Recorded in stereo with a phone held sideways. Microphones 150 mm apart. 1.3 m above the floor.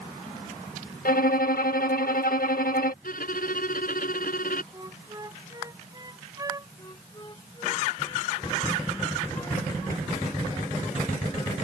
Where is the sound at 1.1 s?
75° left (ahead or behind).